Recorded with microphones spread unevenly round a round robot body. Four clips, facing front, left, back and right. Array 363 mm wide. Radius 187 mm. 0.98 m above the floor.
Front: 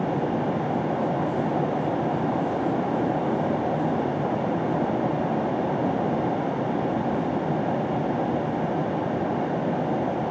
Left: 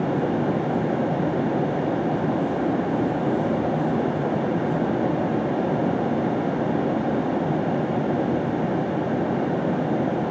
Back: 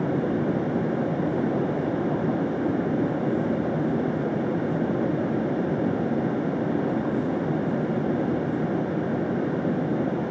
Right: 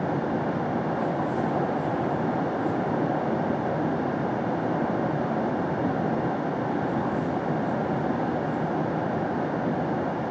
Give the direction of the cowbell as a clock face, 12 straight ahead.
No cowbell in this recording.